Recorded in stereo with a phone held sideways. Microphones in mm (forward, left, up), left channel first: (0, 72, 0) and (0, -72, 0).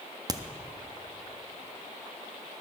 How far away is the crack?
About 0.5 m.